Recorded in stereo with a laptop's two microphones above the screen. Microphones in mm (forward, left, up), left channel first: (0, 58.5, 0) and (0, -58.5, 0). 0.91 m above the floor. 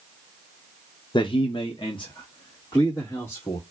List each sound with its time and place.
1.1 s a man speaking: 45° left (ahead or behind), 0.5 m; by 3.6 s 35° left (ahead or behind), 1.6 m